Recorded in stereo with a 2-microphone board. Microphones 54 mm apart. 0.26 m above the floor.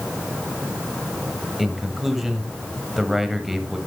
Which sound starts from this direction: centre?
A man speaking, at 1.6 s.